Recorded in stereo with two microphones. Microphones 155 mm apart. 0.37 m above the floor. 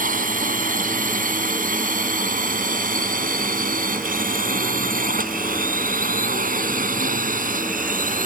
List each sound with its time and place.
0.0 s a drone: 65° right (ahead or behind)